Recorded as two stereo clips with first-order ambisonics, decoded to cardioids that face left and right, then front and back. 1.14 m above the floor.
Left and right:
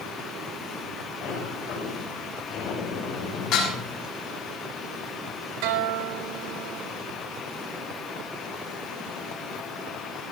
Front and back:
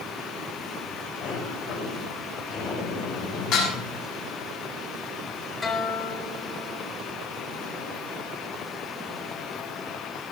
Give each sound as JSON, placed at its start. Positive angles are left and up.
{"t": 1.2, "sound": "a sliding door", "azimuth_deg": 45, "distance_m": 7.5}
{"t": 3.5, "sound": "dishes clattering", "azimuth_deg": 45, "distance_m": 7.0}
{"t": 5.6, "sound": "a guitar", "azimuth_deg": -75, "distance_m": 2.5}